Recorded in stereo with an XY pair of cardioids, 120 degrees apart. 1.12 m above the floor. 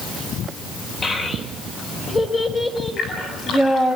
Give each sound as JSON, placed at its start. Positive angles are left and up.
{"t": 1.0, "sound": "a child speaking", "azimuth_deg": 35, "distance_m": 3.5}
{"t": 3.0, "sound": "a splash", "azimuth_deg": 45, "distance_m": 9.5}